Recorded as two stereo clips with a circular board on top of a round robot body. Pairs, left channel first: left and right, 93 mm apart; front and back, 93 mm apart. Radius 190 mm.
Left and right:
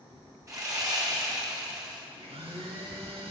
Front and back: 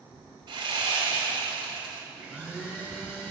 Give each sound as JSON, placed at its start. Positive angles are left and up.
{"t": 0.5, "sound": "sawing", "azimuth_deg": -145, "distance_m": 4.0}
{"t": 2.1, "sound": "a blender", "azimuth_deg": -100, "distance_m": 4.5}